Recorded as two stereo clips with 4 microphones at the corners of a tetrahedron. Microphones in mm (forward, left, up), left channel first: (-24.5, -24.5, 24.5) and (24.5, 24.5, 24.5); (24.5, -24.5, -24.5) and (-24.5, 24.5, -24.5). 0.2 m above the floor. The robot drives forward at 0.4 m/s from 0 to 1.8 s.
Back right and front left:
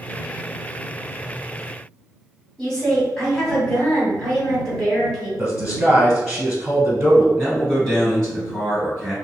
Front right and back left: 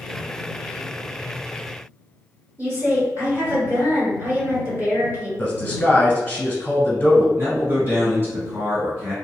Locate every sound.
2.6 s a woman speaking: 155° left, 1.3 m
5.4 s a man speaking: straight ahead, 1.0 m
7.4 s a man speaking: 150° left, 1.9 m